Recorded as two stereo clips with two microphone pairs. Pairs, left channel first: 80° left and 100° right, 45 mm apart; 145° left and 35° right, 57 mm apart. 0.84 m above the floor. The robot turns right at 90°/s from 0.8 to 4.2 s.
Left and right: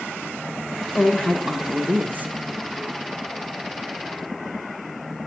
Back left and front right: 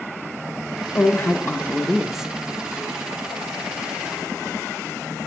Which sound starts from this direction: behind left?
A woman speaking, at 0.9 s.